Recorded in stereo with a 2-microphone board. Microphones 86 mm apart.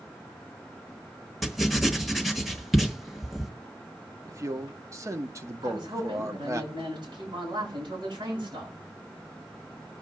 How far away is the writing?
About 1.2 m.